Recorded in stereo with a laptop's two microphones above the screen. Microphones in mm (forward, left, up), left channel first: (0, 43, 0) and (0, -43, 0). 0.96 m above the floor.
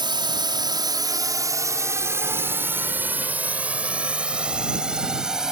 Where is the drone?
60° right (ahead or behind); by 5.5 s 5° right (ahead or behind).